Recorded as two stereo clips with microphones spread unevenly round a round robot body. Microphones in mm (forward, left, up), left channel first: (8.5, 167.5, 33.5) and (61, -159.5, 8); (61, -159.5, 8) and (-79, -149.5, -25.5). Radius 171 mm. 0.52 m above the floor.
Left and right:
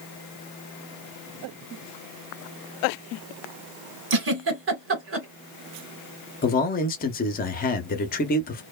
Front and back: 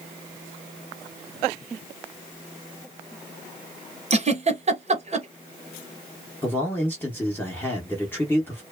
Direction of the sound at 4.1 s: 135° right.